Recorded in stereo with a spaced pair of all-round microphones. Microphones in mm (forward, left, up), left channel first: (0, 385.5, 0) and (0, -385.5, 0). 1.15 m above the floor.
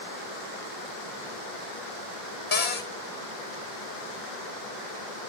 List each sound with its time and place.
2.5 s a cupboard door: 80° left, 1.8 m